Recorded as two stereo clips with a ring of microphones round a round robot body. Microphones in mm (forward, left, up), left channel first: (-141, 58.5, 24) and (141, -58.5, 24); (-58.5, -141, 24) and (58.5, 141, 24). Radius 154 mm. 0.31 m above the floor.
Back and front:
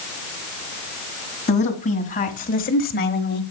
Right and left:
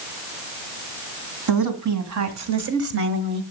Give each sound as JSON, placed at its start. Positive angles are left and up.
{"t": 1.5, "sound": "a woman speaking", "azimuth_deg": 90, "distance_m": 2.5}